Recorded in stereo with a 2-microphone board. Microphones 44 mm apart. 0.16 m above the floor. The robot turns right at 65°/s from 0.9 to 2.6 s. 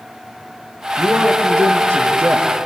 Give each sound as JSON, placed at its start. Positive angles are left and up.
{"t": 1.0, "sound": "a man speaking", "azimuth_deg": -130, "distance_m": 5.0}